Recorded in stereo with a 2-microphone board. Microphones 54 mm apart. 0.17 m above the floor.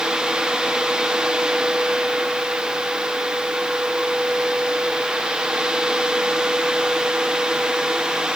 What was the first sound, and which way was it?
Only background noise.